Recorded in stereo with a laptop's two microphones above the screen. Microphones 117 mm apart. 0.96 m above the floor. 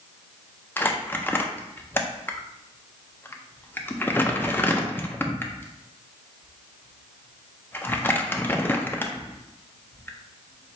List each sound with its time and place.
0.8 s crumpling: 15° left (ahead or behind), 0.5 m